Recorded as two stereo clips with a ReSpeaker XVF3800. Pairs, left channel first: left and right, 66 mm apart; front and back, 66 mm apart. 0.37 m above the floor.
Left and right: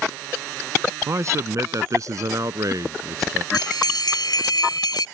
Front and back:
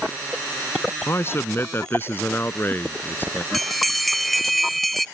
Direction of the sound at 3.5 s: 90° left.